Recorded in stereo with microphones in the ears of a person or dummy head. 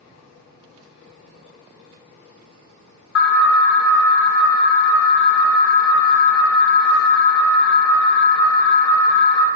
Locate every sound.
3.1 s an alarm: 75° left (ahead or behind), 0.9 m